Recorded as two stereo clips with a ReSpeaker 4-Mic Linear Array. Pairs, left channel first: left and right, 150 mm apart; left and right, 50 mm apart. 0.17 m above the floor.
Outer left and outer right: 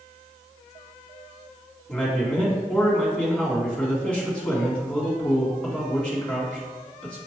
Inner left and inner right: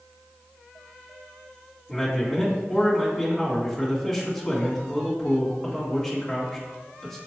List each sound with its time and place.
1.9 s a man speaking: 5° left (ahead or behind), 1.9 m